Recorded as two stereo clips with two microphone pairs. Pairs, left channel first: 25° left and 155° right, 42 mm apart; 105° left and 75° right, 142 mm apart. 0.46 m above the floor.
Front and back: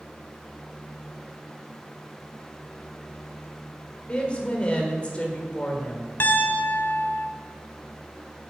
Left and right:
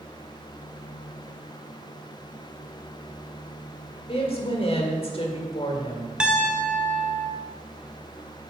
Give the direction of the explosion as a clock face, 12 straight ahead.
No explosion in this recording.